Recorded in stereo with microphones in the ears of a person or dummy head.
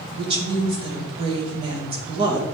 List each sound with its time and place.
0.2 s a woman speaking: 30° right (ahead or behind), 2.5 m